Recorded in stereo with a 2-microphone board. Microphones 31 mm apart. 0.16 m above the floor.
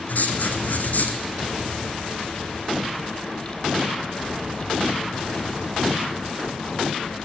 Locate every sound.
0.1 s writing: 60° left (ahead or behind), 2.0 m